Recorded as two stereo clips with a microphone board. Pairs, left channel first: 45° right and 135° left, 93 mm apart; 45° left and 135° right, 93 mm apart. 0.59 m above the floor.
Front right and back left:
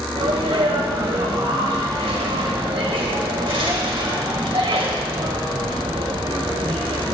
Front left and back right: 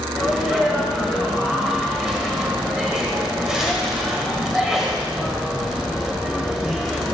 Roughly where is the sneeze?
Behind left.